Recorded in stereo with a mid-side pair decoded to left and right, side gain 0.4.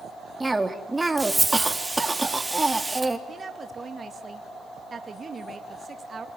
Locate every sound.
0.4 s a cough: 15° right, 3.5 m
3.3 s a woman speaking: 40° right, 2.5 m